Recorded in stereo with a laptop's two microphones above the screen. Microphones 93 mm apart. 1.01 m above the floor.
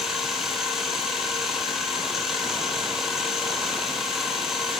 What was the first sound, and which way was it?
A machine running, 5° right (ahead or behind).